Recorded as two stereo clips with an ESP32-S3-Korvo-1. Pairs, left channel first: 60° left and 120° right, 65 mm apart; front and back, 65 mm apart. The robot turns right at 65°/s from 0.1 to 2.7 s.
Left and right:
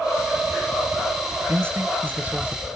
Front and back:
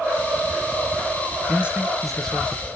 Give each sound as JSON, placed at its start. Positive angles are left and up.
{"t": 1.5, "sound": "a man speaking", "azimuth_deg": -130, "distance_m": 1.1}